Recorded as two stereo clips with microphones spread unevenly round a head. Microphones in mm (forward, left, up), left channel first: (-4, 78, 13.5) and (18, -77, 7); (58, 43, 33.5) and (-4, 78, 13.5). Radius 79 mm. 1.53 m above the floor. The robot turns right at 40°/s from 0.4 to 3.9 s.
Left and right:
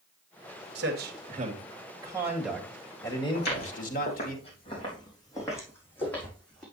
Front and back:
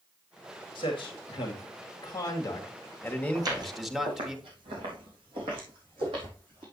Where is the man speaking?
65° right, 2 m; by 4.3 s 65° left, 2 m.